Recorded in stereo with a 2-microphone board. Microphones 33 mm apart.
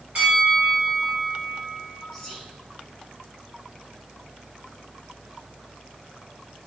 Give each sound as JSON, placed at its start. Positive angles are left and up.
{"t": 0.1, "sound": "a bell", "side_deg": -45, "distance_m": 1.9}
{"t": 2.1, "sound": "whispering", "side_deg": 0, "distance_m": 1.2}